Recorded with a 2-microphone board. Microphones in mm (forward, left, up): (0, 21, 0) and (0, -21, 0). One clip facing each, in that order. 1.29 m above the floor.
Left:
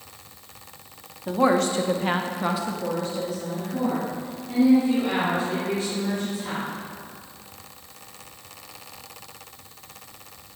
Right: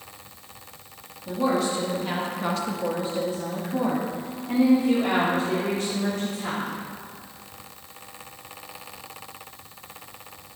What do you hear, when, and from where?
1.3 s a woman speaking: 75° left (ahead or behind), 0.9 m; by 6.7 s 50° right (ahead or behind), 3 m